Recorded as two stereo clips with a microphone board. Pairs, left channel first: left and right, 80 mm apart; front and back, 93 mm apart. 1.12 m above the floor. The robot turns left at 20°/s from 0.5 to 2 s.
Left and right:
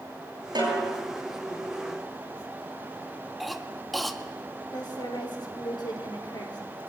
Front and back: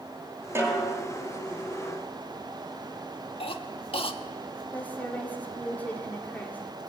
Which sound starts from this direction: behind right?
A snare drum, at 0.6 s.